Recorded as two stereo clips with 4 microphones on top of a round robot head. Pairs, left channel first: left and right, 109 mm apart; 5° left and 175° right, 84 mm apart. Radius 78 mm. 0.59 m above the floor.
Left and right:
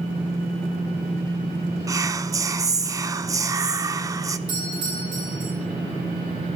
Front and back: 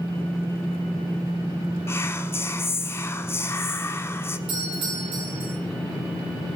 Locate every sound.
1.9 s whispering: 45° right, 1.3 m
4.5 s a doorbell: 140° right, 8 m